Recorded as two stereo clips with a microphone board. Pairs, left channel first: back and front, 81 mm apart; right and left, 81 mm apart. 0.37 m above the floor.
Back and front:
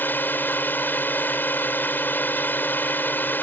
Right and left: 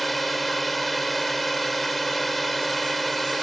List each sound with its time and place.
0.0 s a drone: straight behind